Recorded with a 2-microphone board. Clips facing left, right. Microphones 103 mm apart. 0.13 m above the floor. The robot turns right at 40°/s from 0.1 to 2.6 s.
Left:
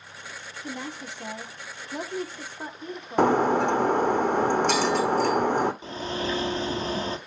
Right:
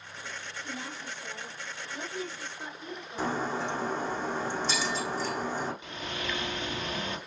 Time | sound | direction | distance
0.6 | a woman speaking | 55° left (ahead or behind) | 4 m
3.2 | breaking glass | 65° left (ahead or behind) | 2 m
5.8 | a bird | 35° left (ahead or behind) | 1.8 m